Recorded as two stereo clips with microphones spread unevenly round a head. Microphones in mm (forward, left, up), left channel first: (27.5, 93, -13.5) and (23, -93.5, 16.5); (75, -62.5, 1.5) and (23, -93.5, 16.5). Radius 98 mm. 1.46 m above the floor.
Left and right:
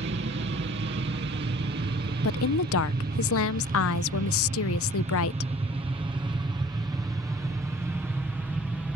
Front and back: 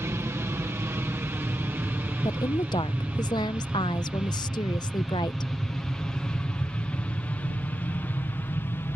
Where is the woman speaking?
80° left.